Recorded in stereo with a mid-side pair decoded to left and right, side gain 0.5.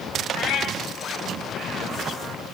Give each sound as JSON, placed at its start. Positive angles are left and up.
{"t": 0.3, "sound": "a cat meowing", "azimuth_deg": 70, "distance_m": 4.5}